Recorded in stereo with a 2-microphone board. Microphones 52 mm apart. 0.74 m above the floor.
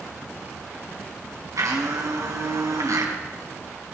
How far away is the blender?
About 3 m.